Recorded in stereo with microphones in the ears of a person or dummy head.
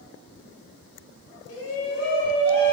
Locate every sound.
1.5 s a shout: 65° left (ahead or behind), 0.6 m; by 2.7 s 25° left (ahead or behind), 1.2 m